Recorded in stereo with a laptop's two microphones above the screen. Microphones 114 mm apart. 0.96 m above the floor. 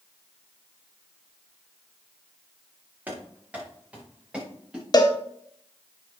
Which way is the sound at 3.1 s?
15° right (ahead or behind).